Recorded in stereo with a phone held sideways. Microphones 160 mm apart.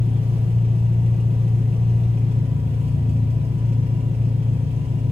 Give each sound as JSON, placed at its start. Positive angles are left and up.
{"t": 0.0, "sound": "an engine running", "side_deg": -40, "distance_m": 0.9}